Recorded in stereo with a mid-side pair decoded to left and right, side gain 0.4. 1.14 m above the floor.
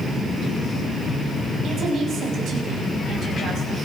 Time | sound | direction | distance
1.6 | a woman speaking | 70° right | 6.5 m